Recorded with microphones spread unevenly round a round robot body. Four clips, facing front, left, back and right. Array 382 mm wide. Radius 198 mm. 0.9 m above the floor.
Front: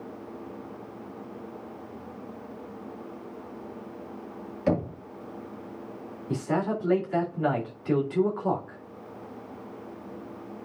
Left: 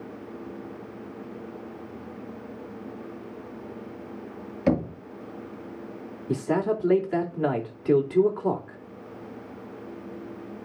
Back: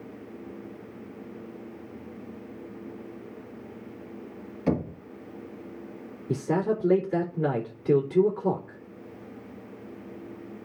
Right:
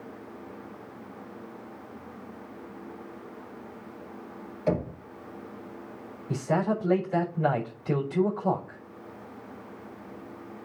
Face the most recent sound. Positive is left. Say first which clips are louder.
# left 2 dB, back 2 dB
turn(degrees=120)